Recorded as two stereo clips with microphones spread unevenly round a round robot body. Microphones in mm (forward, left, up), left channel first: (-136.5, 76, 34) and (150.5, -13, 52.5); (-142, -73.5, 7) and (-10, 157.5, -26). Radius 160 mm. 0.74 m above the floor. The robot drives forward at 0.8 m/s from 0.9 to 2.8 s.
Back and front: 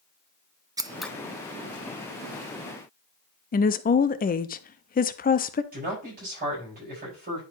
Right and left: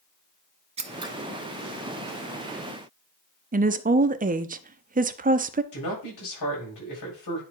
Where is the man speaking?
80° right, 4.5 m.